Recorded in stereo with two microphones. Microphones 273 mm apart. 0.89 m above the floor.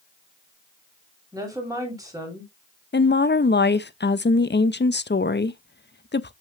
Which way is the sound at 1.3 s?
15° right (ahead or behind).